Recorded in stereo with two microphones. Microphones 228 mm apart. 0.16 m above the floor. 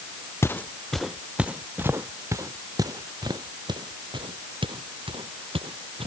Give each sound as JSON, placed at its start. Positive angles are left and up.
{"t": 0.4, "sound": "footsteps", "side_deg": 10}